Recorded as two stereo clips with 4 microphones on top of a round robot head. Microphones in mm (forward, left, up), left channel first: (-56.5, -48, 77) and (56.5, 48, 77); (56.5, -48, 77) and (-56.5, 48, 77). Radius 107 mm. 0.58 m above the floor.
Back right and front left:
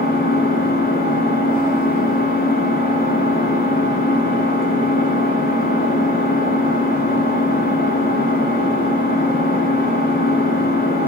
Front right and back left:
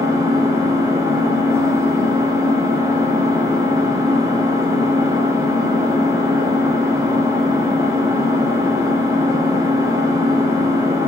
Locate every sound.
0.0 s an engine running: 150° right, 0.8 m